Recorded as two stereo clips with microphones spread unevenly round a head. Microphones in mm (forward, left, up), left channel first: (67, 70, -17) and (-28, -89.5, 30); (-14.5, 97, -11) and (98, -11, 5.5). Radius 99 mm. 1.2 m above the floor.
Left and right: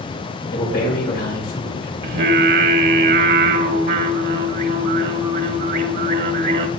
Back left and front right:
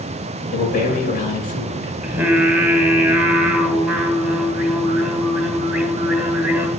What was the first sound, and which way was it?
A man speaking, 110° left.